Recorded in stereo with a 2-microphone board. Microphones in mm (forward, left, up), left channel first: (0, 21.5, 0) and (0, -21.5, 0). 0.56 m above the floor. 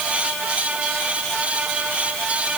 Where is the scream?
No scream in this recording.